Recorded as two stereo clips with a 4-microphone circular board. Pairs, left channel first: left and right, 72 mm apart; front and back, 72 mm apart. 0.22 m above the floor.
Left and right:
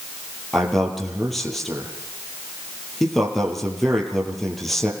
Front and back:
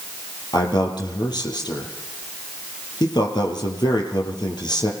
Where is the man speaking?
5° left, 4.5 m.